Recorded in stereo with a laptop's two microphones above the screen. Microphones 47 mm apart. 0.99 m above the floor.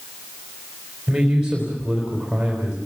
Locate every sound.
1.1 s a man speaking: 10° right (ahead or behind), 4 m